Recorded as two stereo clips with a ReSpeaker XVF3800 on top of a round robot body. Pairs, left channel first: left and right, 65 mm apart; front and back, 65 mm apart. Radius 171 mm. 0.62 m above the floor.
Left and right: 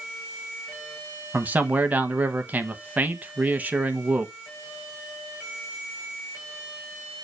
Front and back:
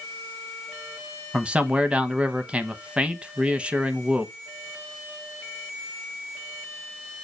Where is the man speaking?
125° right, 1.0 m.